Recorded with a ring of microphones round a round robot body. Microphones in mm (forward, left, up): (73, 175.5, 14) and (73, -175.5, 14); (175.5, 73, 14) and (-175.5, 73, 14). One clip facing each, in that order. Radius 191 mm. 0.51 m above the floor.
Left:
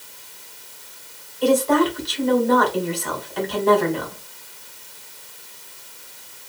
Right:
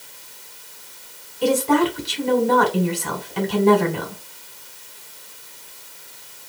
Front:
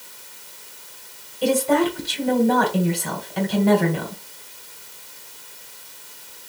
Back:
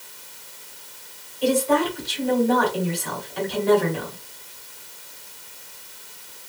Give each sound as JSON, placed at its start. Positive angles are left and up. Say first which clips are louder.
{"t": 1.4, "sound": "a woman speaking", "louder": "left 1 dB, front 2 dB", "azimuth_deg": -35, "distance_m": 1.8}